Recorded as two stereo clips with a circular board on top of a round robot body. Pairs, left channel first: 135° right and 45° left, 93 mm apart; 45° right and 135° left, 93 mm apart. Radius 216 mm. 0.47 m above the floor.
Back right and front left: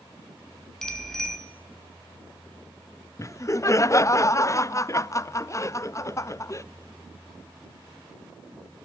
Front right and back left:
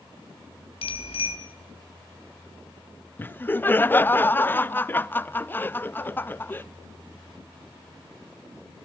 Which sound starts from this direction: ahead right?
A bicycle bell, at 0.8 s.